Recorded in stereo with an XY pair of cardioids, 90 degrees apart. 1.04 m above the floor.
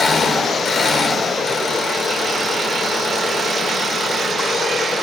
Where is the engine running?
55° left, 1.7 m.